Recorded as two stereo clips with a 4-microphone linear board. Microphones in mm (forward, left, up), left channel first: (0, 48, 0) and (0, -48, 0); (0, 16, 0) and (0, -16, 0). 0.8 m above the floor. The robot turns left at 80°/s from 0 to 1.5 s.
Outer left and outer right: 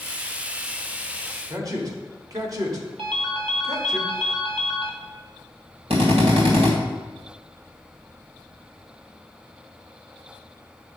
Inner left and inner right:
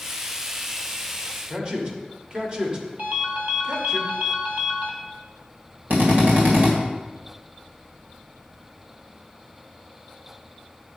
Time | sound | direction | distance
1.5 | a man speaking | 35° right (ahead or behind) | 1.7 m
3.0 | a ringtone | 70° right (ahead or behind) | 1.6 m
5.9 | a drill | 80° right | 2 m